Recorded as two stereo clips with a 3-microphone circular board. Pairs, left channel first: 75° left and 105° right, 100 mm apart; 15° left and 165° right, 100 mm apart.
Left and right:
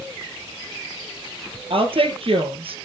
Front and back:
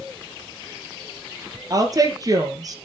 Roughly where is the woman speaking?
Behind right.